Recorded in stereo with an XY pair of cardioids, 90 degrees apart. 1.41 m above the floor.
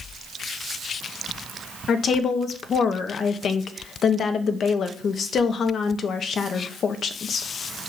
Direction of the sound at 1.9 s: 60° left.